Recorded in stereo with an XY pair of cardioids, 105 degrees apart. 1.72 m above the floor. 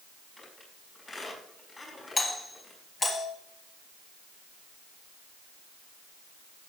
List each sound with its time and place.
0.4 s a squeak: 35° left, 5.5 m
2.2 s a doorbell: 35° left, 4 m